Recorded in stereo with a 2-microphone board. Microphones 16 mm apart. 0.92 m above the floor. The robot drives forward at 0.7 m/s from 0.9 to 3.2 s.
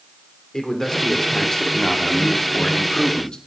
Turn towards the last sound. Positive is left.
turn(degrees=65)  # may be behind; listen again after turning